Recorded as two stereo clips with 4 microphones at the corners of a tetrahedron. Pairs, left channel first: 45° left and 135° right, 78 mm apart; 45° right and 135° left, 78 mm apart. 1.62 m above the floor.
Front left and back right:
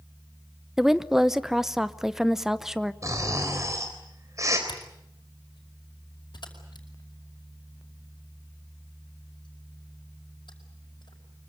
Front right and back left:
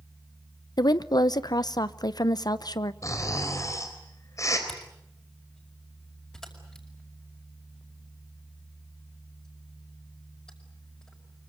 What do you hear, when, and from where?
0.8 s a woman speaking: 50° right, 0.8 m
3.0 s snoring: 90° right, 4 m
4.7 s a camera shutter: 35° left, 5 m